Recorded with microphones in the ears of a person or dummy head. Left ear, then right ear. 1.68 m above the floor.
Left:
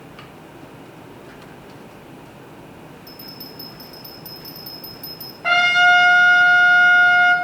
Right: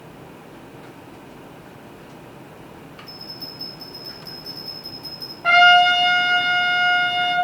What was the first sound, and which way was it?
A bell, 10° left (ahead or behind).